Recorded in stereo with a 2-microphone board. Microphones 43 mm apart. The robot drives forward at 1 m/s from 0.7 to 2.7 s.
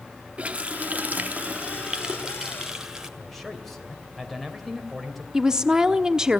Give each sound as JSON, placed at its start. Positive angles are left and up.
{"t": 0.4, "sound": "a running tap", "side_deg": -30, "distance_m": 0.7}
{"t": 3.2, "sound": "a man speaking", "side_deg": 0, "distance_m": 2.5}
{"t": 5.3, "sound": "a woman speaking", "side_deg": -15, "distance_m": 1.0}